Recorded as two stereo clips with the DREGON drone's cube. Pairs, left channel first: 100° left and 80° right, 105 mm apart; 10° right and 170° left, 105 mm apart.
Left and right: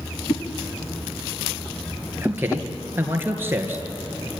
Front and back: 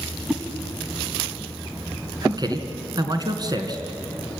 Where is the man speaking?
145° right, 2.5 m.